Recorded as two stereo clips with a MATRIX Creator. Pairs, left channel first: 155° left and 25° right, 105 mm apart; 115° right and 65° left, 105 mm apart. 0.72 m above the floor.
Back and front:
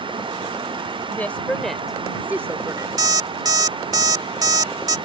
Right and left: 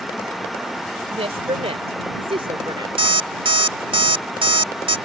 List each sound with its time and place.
1.1 s a woman speaking: 85° left; by 2.9 s 25° left
3.0 s an alarm clock: 30° left